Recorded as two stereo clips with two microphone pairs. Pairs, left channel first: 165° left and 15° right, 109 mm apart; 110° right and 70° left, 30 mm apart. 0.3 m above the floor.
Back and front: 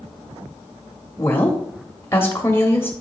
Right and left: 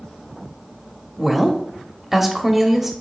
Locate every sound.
1.2 s a woman speaking: 135° left, 1.0 m